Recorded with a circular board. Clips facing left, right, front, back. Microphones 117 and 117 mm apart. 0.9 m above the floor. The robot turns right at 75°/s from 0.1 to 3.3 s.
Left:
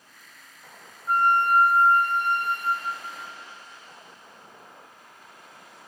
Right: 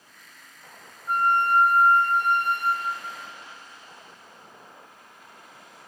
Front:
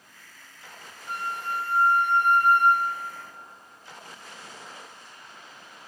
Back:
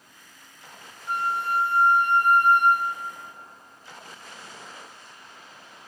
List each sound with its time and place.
1.1 s a flute: 135° left, 5 m; by 3.1 s 75° right, 5 m